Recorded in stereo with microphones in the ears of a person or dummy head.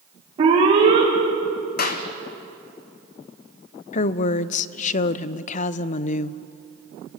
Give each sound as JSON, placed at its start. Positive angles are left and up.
{"t": 0.4, "sound": "an alarm", "side_deg": -30, "distance_m": 5.0}
{"t": 1.8, "sound": "a clap", "side_deg": 55, "distance_m": 1.5}
{"t": 3.9, "sound": "a woman speaking", "side_deg": 45, "distance_m": 0.6}